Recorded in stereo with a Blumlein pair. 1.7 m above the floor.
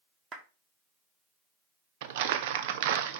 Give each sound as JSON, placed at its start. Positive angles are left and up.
{"t": 0.3, "sound": "a clap", "azimuth_deg": -25, "distance_m": 1.4}
{"t": 2.0, "sound": "crumpling", "azimuth_deg": -50, "distance_m": 0.7}